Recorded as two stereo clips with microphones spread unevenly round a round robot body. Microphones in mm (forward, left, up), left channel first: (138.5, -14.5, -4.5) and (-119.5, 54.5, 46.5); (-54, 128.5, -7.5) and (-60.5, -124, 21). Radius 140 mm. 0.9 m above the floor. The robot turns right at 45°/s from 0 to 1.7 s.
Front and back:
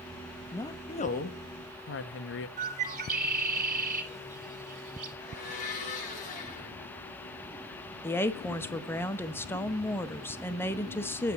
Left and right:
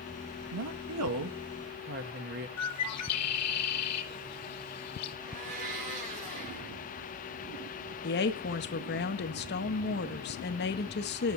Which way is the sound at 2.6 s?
105° left.